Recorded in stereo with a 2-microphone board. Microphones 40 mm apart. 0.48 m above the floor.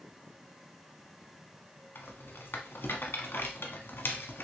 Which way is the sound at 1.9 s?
75° left (ahead or behind).